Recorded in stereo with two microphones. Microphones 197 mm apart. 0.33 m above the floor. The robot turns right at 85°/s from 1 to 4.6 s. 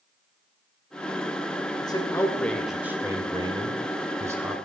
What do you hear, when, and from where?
1.8 s a man speaking: 20° left (ahead or behind), 1.2 m; by 4.6 s 5° right (ahead or behind), 1.2 m